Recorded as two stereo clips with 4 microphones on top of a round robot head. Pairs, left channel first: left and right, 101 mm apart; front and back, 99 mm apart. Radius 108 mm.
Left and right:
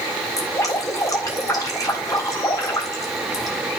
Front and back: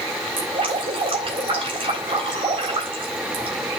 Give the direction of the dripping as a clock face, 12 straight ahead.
7 o'clock.